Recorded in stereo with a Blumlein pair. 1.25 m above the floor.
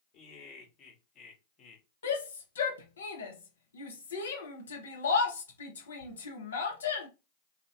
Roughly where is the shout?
Ahead left.